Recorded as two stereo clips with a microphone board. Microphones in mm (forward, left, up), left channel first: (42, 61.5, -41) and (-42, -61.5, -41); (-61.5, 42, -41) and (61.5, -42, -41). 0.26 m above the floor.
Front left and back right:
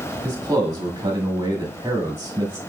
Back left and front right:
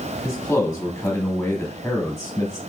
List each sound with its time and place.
0.2 s a man speaking: 160° right, 1.4 m